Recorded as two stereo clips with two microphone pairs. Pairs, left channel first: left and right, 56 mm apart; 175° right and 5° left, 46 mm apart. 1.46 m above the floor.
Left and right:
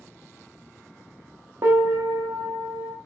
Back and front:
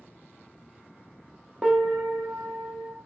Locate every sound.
1.6 s a piano: 70° right, 0.7 m